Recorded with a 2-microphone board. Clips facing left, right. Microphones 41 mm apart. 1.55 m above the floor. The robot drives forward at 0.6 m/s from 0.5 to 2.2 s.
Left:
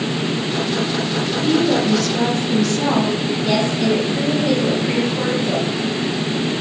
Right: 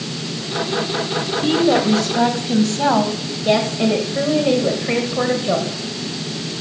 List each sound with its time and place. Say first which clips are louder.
1.4 s a woman speaking: right 1 dB; 35° right (ahead or behind), 1.4 m; by 3.1 s 25° right (ahead or behind), 1.8 m
3.5 s a woman speaking: right 3 dB; 25° right (ahead or behind), 1.3 m